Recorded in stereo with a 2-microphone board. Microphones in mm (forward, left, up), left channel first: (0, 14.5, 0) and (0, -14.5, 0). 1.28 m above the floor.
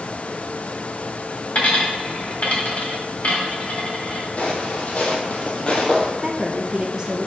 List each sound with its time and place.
1.6 s a dropped coin: 50° left (ahead or behind), 1.6 m
4.4 s footsteps: 45° left (ahead or behind), 1.9 m; by 6.1 s 30° left (ahead or behind), 1.6 m
6.2 s a woman speaking: 20° right (ahead or behind), 0.6 m